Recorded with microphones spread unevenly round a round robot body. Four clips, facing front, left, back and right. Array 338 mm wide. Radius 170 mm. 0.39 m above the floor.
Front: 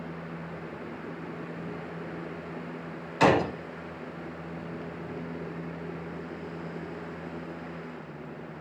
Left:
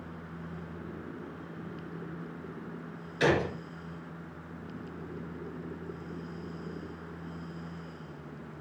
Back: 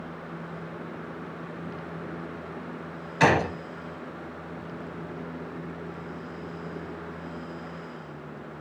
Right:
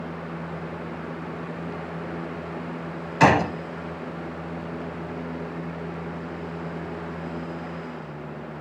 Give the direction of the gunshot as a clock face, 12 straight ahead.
3 o'clock.